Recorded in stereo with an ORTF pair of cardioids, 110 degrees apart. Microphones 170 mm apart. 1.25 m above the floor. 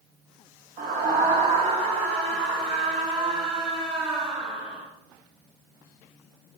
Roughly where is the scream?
Ahead right.